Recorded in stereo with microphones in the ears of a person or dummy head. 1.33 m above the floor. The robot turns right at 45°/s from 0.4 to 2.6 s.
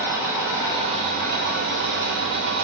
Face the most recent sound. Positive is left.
turn(degrees=-70)